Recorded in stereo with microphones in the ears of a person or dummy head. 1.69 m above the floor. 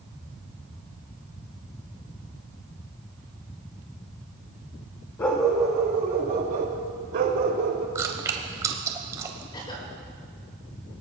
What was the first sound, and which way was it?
A dog barking, 10° left (ahead or behind).